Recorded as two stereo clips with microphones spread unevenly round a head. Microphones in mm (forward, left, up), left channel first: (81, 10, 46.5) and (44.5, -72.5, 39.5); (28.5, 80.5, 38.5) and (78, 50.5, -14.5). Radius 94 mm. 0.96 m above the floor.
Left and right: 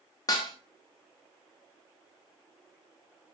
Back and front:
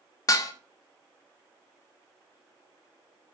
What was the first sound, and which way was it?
Dishes clattering, 130° left.